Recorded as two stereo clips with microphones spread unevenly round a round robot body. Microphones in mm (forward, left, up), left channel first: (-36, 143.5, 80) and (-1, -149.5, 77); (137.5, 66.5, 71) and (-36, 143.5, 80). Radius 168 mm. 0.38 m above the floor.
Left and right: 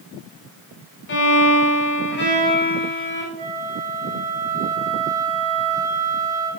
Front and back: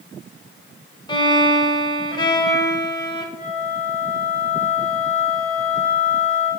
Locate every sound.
1.1 s a violin: 45° left, 1.1 m
3.4 s a flute: 30° right, 2.5 m